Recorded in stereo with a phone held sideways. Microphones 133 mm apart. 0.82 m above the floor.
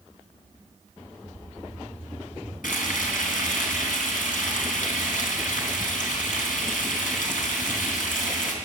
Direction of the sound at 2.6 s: 85° left.